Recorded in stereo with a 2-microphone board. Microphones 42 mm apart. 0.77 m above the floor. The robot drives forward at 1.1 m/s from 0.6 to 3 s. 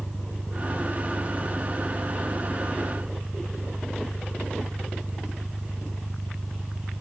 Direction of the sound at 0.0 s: 50° right (ahead or behind).